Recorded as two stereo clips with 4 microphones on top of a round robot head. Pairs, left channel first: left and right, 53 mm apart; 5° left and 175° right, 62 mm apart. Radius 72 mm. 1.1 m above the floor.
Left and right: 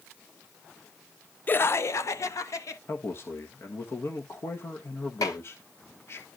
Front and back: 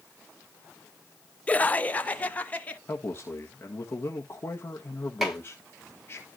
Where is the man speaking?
55° left, 1.6 m.